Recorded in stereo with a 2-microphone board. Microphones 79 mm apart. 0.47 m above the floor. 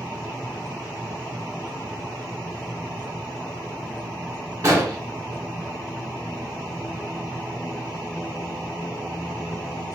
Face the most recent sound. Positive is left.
turn(degrees=-35)  # may be behind; listen again after turning